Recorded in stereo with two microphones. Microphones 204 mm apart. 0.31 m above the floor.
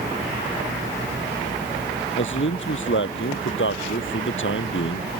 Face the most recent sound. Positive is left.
turn(degrees=70)  # may be behind; listen again after turning